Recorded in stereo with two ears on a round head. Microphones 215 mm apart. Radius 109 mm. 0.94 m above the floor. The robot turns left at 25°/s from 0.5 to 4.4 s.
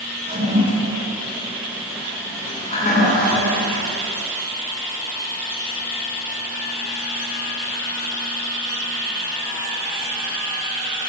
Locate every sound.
0.3 s a toilet flushing: 30° right (ahead or behind), 9.5 m; by 4.0 s 60° left (ahead or behind), 9.5 m